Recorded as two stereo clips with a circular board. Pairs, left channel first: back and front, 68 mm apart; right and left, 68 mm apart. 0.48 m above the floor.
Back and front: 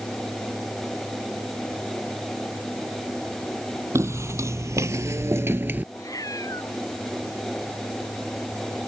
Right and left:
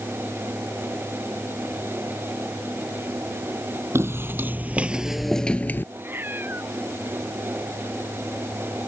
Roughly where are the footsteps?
Ahead left.